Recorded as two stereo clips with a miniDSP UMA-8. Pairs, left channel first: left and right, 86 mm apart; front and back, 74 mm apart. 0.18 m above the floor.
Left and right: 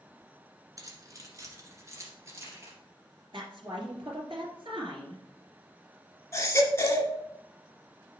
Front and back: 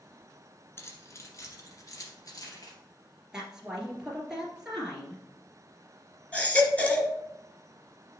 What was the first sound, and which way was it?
Keys jangling, 50° right.